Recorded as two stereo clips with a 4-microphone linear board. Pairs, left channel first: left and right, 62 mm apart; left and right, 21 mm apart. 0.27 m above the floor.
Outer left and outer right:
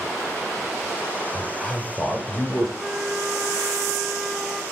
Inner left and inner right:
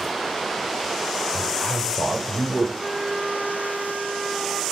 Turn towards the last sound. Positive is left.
turn(degrees=-15)  # may be behind; listen again after turning